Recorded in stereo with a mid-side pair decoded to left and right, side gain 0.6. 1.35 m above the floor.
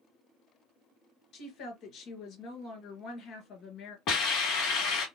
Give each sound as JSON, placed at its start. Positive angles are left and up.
{"t": 1.3, "sound": "a woman speaking", "azimuth_deg": 60, "distance_m": 2.0}
{"t": 4.1, "sound": "a hiss", "azimuth_deg": 65, "distance_m": 1.7}